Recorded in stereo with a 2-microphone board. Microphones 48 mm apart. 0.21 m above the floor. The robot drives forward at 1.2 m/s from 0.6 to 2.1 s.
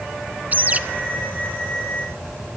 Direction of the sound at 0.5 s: 35° right (ahead or behind).